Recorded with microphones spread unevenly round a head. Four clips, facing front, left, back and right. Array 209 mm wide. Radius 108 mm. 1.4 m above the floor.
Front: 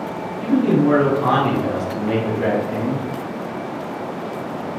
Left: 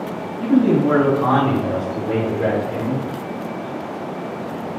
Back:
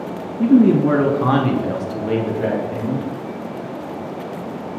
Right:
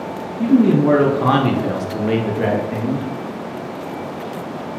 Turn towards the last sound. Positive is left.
turn(degrees=-55)